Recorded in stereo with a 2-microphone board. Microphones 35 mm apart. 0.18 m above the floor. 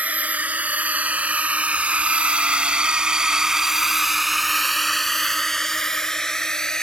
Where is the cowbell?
No cowbell in this recording.